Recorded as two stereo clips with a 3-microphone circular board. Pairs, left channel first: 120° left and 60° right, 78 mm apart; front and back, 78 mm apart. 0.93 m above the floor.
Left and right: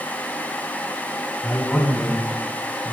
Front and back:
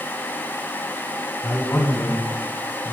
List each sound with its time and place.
1.4 s a man speaking: 45° left, 6.5 m; by 3.0 s 50° left, 5 m